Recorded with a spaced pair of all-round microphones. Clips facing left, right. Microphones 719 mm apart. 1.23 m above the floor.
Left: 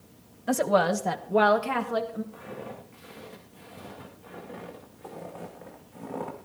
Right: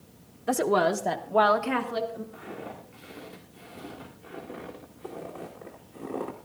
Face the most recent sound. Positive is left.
turn(degrees=20)  # may be behind; listen again after turning